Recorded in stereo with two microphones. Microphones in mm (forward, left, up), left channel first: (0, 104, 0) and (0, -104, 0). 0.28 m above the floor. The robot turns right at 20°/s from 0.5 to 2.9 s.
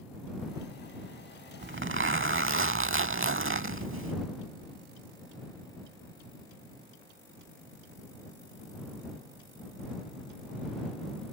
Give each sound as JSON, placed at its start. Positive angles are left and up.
{"t": 1.6, "sound": "a zipper", "side_deg": -70}